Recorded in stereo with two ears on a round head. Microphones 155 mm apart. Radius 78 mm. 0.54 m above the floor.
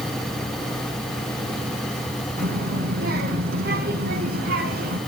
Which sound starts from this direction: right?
A child speaking, at 2.4 s.